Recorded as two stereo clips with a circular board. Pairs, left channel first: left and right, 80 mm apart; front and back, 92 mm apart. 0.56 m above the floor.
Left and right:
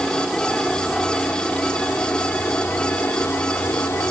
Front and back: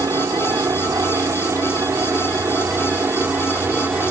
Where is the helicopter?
170° left; by 4.1 s 125° left.